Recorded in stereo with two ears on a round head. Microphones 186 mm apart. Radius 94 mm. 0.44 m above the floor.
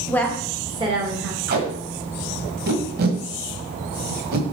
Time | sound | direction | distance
0.1 | a woman speaking | 10° left (ahead or behind) | 1.4 m
1.5 | tape being pulled | 50° right (ahead or behind) | 1.5 m